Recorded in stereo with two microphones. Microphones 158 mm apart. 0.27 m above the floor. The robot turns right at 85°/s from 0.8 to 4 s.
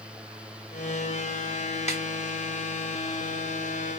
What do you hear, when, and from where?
1.9 s a snare drum: 45° left (ahead or behind), 2.0 m; by 2.0 s 40° left (ahead or behind), 2.0 m